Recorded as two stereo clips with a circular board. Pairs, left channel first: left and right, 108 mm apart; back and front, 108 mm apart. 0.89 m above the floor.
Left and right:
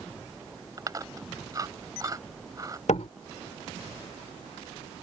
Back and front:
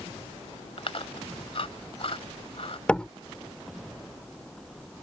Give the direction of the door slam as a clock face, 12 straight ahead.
9 o'clock.